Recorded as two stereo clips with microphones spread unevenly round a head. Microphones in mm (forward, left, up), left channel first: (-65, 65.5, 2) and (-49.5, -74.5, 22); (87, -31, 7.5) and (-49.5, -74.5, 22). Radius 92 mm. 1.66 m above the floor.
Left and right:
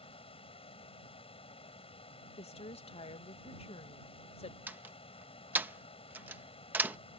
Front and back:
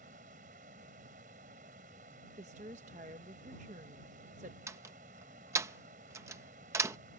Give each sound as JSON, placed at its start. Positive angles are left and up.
{"t": 0.0, "sound": "a fan", "azimuth_deg": 145}
{"t": 2.4, "sound": "a woman speaking", "azimuth_deg": 145}
{"t": 4.7, "sound": "a door slam", "azimuth_deg": -130}